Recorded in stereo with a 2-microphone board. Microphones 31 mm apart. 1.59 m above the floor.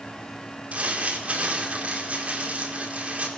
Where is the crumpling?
50° right (ahead or behind), 5 m.